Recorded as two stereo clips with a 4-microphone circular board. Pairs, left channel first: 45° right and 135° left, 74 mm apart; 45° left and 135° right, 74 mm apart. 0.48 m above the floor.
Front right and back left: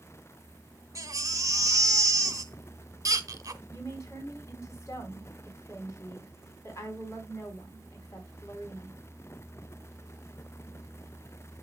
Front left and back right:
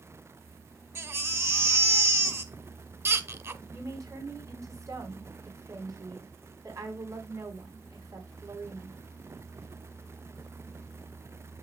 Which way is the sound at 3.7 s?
90° right.